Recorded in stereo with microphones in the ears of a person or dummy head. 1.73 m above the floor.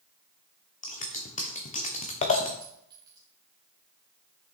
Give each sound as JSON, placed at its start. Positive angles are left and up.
{"t": 0.8, "sound": "scissors", "side_deg": 40, "distance_m": 1.0}
{"t": 2.6, "sound": "a clink", "side_deg": -20, "distance_m": 2.0}